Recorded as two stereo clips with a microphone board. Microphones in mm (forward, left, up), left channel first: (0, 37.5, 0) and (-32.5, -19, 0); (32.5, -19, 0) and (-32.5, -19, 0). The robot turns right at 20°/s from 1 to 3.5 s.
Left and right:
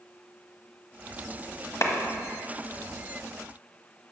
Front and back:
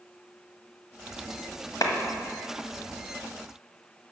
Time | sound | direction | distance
1.8 | a clap | 15° left | 1.1 m